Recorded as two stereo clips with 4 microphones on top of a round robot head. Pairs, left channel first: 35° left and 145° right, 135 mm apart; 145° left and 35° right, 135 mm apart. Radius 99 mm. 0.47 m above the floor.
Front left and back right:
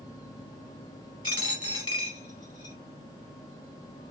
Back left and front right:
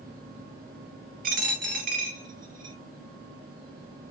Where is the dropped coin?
20° right, 1.6 m.